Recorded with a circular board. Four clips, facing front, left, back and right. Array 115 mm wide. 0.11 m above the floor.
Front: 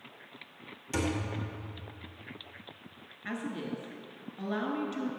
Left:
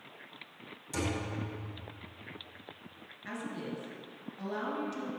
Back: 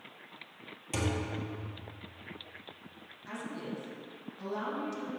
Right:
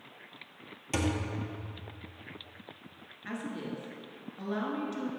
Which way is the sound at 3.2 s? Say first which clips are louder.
Right 2 dB, front 4 dB; 15° right.